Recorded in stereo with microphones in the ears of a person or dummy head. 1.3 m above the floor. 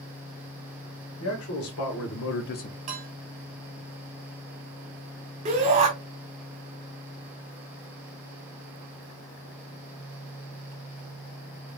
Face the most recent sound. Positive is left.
turn(degrees=-30)  # may be behind; listen again after turning